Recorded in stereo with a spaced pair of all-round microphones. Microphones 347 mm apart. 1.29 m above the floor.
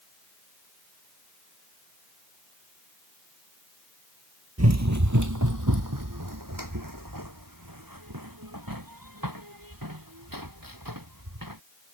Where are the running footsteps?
50° right (ahead or behind); by 11.6 s 75° right (ahead or behind).